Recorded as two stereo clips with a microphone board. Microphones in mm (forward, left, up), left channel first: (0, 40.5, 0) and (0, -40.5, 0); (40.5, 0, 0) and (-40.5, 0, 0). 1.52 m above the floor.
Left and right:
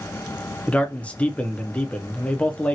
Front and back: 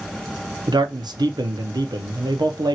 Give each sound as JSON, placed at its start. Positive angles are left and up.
{"t": 0.7, "sound": "a man speaking", "azimuth_deg": 165, "distance_m": 0.6}